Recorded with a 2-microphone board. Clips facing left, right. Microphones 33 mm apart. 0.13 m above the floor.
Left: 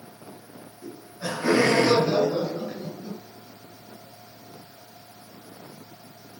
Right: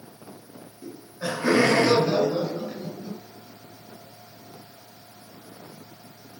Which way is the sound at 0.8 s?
25° right (ahead or behind).